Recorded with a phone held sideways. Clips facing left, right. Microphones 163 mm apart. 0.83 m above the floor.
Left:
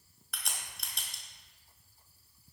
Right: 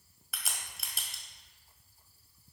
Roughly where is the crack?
Centre.